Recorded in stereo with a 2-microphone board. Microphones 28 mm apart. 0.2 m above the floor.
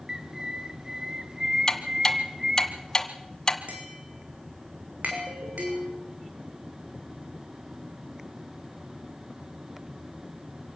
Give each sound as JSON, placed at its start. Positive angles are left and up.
{"t": 0.1, "sound": "a bird", "side_deg": -30, "distance_m": 1.8}
{"t": 1.7, "sound": "ticking", "side_deg": 25, "distance_m": 1.7}
{"t": 3.7, "sound": "tapping", "side_deg": -80, "distance_m": 5.5}
{"t": 5.1, "sound": "a ringtone", "side_deg": -65, "distance_m": 4.0}